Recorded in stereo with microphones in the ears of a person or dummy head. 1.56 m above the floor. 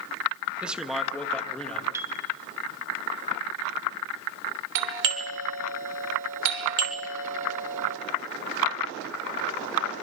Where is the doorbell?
70° right (ahead or behind), 3 m.